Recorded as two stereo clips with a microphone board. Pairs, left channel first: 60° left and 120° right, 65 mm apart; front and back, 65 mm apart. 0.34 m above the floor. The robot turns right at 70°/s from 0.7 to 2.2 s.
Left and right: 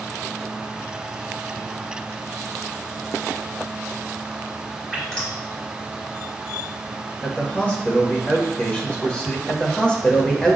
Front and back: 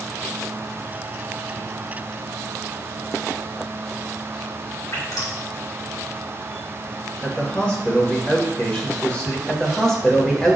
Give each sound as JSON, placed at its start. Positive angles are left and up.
{"t": 4.9, "sound": "dripping", "azimuth_deg": -25, "distance_m": 2.5}
{"t": 7.2, "sound": "a man speaking", "azimuth_deg": 35, "distance_m": 0.9}
{"t": 9.5, "sound": "a man speaking", "azimuth_deg": 60, "distance_m": 0.9}